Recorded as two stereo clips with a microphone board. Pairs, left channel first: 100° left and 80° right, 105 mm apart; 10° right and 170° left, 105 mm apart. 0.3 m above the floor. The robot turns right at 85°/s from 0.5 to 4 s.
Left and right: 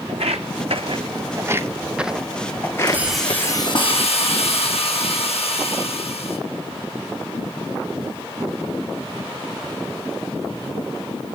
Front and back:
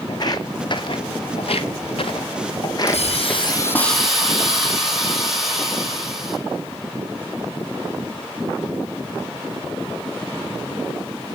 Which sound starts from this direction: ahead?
A hiss, at 2.9 s.